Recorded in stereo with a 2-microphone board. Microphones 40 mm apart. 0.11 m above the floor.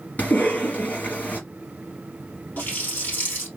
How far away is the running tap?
About 1.5 m.